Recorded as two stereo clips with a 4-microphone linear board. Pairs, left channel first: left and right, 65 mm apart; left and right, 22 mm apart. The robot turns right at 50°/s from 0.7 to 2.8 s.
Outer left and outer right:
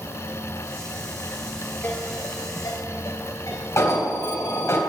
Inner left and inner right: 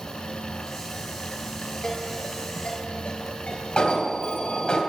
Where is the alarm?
50° left (ahead or behind), 3.5 m.